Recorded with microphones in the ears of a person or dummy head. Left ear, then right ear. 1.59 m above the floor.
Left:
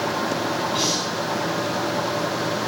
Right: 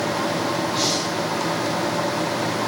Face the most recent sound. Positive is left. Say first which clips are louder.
# even
turn(degrees=10)  # may be behind; listen again after turning